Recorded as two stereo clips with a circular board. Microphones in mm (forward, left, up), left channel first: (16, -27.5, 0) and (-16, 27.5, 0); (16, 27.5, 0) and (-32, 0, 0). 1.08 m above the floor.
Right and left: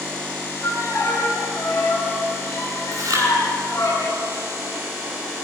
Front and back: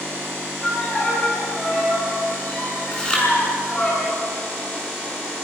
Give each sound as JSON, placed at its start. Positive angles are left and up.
{"t": 0.6, "sound": "a violin", "azimuth_deg": -30, "distance_m": 9.0}
{"t": 2.9, "sound": "chewing", "azimuth_deg": 105, "distance_m": 7.5}